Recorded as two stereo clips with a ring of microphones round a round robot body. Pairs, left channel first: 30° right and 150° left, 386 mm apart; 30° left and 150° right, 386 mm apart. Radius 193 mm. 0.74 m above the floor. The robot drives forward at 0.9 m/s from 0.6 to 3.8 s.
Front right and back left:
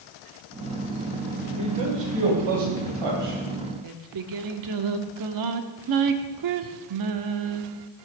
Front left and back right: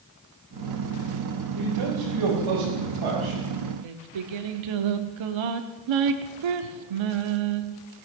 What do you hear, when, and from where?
1.6 s a man speaking: 175° left, 3.5 m
3.8 s singing: 170° right, 1.0 m